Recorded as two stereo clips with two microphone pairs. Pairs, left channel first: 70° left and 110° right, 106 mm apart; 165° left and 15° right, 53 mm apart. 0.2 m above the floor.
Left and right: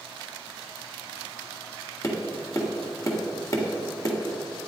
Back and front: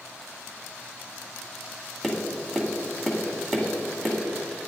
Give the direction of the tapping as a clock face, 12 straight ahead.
9 o'clock.